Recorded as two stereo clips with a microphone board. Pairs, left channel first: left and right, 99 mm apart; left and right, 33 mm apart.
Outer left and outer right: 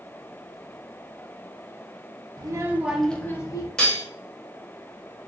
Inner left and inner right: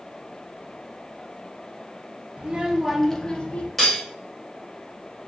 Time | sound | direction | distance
2.4 | a child speaking | 40° right (ahead or behind) | 0.7 m
3.8 | cutlery clinking | 10° left (ahead or behind) | 1.1 m